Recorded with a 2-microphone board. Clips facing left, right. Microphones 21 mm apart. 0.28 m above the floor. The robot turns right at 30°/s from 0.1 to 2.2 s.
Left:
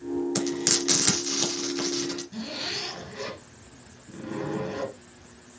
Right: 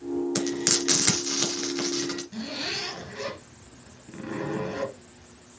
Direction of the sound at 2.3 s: 45° right (ahead or behind).